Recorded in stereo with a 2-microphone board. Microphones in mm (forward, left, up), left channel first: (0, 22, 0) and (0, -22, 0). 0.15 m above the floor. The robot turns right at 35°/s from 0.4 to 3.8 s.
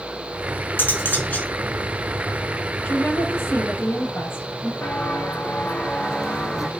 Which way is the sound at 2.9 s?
30° left.